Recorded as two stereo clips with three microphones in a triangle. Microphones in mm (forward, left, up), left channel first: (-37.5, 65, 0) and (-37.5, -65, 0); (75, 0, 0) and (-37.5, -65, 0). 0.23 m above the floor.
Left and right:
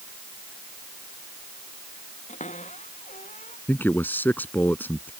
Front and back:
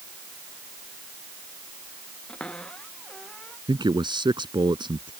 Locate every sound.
2.3 s a cupboard door: 115° left
3.7 s a man speaking: 165° left